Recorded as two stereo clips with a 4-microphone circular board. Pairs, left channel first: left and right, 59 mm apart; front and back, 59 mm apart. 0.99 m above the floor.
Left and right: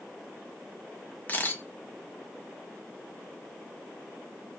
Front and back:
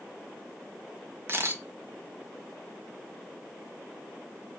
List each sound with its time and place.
1.3 s a camera shutter: 145° left, 1.6 m